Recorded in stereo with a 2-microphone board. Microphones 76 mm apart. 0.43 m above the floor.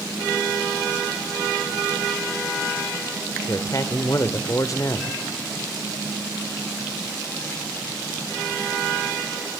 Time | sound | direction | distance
3.5 | a man speaking | 45° left (ahead or behind) | 1.0 m